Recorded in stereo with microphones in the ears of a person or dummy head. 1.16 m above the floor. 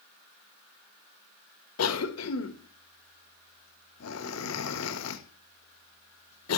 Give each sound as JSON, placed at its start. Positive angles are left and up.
{"t": 1.8, "sound": "a cough", "side_deg": 75, "distance_m": 1.5}